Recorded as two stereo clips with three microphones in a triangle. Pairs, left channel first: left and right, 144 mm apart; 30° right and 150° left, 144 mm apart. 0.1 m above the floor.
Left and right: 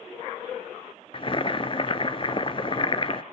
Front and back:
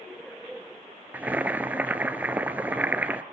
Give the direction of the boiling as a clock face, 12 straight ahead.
9 o'clock.